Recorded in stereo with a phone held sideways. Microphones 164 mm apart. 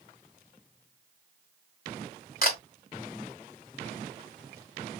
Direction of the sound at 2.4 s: 65° left (ahead or behind).